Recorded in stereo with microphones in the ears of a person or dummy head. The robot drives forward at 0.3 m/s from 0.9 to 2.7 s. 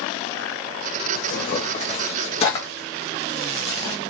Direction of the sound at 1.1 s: 50° left (ahead or behind).